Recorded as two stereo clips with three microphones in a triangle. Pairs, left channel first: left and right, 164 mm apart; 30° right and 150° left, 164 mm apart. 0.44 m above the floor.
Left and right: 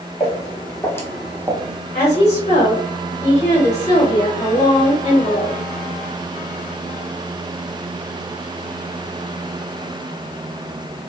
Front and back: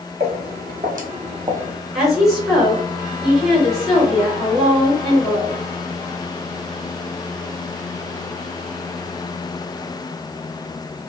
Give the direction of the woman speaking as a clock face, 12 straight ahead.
10 o'clock.